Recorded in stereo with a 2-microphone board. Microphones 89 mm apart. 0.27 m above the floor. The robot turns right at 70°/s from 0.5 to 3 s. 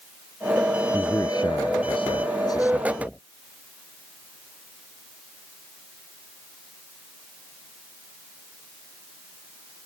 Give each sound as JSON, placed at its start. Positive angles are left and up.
{"t": 0.9, "sound": "a man speaking", "azimuth_deg": 20}